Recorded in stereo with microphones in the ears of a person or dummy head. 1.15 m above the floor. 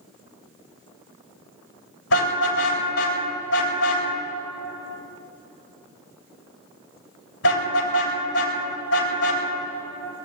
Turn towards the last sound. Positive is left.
turn(degrees=85)